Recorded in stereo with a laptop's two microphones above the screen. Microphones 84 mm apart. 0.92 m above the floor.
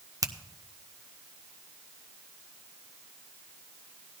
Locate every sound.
0.2 s a finger snap: 45° right (ahead or behind), 0.6 m